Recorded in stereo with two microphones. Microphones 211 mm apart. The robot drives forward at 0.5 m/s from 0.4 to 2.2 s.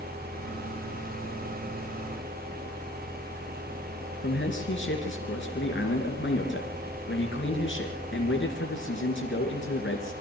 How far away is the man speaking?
About 3.5 m.